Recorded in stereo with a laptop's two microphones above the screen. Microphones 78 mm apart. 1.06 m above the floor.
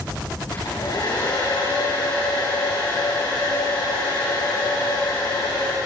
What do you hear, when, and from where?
0.5 s a hair dryer: 70° left (ahead or behind), 7.5 m